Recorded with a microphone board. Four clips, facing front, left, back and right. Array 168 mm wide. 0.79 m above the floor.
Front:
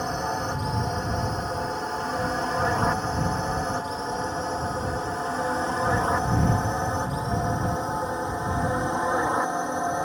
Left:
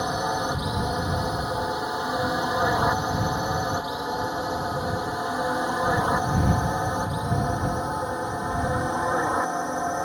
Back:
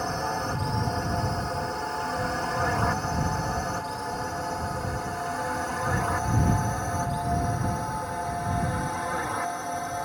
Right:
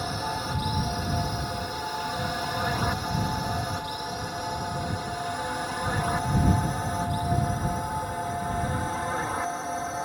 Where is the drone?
85° left; by 10.1 s 45° left.